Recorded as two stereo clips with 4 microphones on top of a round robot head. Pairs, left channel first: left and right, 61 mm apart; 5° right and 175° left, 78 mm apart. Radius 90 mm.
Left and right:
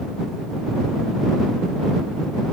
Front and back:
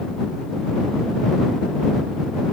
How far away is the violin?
I don't hear a violin.